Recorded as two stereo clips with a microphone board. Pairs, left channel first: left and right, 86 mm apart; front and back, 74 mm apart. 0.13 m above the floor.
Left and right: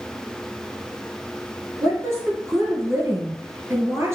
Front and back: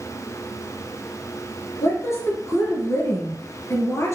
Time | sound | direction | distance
1.8 | a woman speaking | 40° right | 2.5 m